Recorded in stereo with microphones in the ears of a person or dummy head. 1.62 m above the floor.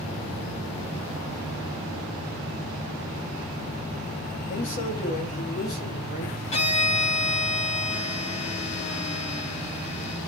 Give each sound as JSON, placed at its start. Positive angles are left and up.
{"t": 4.5, "sound": "a man speaking", "side_deg": 40, "distance_m": 2.0}
{"t": 6.5, "sound": "a violin", "side_deg": 35, "distance_m": 1.7}